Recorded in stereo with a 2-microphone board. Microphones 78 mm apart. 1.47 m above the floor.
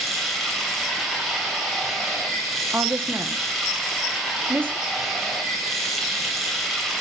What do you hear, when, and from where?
0.0 s running water: centre (ahead or behind), 3 m
2.7 s a woman speaking: 25° right (ahead or behind), 1.3 m